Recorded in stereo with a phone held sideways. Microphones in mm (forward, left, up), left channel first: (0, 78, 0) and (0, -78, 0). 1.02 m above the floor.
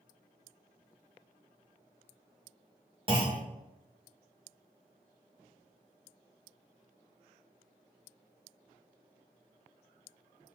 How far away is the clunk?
About 1.2 m.